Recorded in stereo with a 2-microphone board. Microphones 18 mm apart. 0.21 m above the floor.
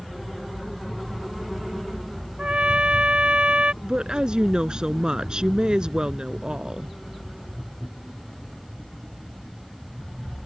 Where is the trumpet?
85° right.